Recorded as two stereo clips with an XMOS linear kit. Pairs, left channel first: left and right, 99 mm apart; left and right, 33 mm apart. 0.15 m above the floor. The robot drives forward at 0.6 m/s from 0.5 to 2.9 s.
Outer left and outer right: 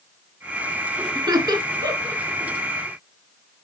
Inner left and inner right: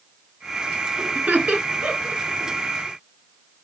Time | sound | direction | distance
1.1 | laughter | 45° right (ahead or behind) | 2.5 m